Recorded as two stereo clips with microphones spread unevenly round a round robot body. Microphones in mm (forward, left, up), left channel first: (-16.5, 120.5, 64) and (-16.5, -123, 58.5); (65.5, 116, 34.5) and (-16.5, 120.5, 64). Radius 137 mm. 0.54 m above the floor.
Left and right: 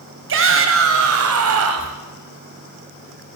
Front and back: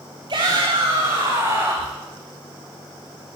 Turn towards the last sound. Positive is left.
turn(degrees=-105)